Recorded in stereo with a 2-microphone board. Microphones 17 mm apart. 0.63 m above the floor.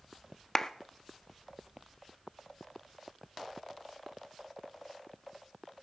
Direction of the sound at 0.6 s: 25° left (ahead or behind).